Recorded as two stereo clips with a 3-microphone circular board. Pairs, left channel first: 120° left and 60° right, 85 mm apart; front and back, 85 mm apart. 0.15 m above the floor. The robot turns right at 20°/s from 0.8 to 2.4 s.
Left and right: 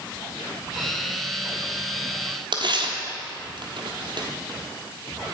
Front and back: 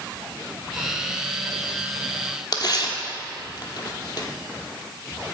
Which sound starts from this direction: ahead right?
Tearing paper, at 2.5 s.